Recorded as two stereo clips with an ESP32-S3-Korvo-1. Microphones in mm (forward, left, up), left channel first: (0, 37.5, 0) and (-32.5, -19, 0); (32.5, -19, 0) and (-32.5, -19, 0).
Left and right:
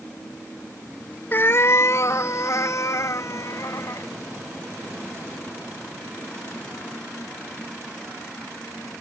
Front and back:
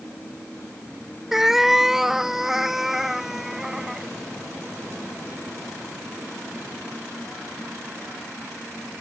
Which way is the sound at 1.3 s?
100° left.